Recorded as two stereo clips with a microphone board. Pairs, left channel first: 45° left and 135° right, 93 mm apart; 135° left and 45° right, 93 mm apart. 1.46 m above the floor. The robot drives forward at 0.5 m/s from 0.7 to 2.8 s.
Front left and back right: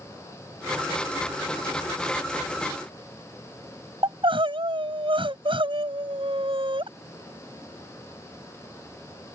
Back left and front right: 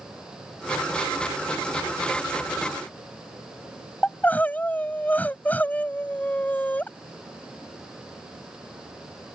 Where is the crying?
155° right.